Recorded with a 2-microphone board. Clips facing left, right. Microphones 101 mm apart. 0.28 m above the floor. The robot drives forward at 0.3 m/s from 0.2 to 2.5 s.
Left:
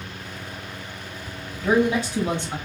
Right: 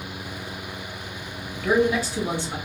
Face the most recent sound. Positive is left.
turn(degrees=20)  # may be behind; listen again after turning